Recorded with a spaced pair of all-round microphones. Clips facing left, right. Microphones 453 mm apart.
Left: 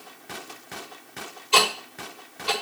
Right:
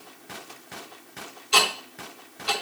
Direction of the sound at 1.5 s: 35° right (ahead or behind).